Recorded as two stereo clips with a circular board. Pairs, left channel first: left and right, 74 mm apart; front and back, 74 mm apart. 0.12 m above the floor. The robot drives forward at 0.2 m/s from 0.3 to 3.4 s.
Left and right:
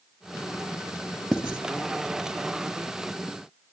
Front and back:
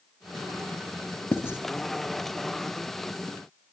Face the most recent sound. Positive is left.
turn(degrees=-25)